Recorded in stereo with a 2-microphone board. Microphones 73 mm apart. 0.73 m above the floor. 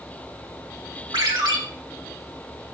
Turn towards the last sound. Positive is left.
turn(degrees=-75)  # may be behind; listen again after turning